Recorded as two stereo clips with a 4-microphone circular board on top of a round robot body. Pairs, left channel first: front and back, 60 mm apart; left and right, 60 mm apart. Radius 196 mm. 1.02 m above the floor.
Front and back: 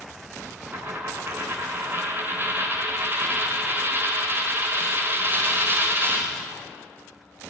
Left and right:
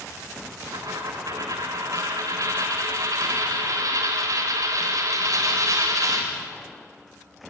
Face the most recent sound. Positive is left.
turn(degrees=-125)